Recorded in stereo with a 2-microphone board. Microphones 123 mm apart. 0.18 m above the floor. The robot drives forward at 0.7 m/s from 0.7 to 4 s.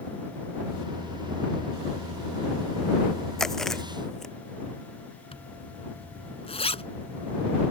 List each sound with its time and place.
3.4 s chewing: 5° left (ahead or behind)
5.3 s a zipper: 55° left (ahead or behind)